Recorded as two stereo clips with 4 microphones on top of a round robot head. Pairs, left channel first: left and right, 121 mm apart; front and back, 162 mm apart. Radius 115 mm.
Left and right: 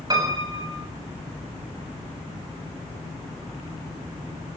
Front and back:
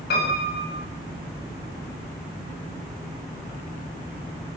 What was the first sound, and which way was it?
A piano, 35° right.